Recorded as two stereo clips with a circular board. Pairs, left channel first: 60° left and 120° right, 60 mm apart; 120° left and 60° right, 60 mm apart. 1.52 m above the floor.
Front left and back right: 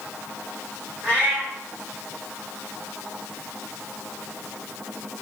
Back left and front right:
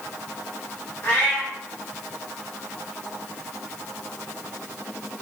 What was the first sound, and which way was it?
A cat meowing, 175° right.